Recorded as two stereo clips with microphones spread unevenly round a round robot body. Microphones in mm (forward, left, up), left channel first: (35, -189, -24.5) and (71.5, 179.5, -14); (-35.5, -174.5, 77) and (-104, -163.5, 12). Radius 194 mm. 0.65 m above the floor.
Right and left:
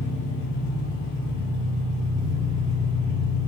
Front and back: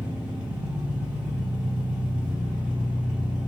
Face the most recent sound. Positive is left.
turn(degrees=160)